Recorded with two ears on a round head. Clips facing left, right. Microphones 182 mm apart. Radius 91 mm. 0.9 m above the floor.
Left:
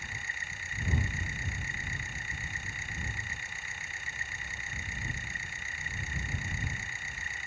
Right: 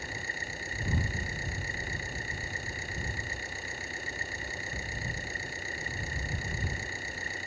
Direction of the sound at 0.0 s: 30° right (ahead or behind).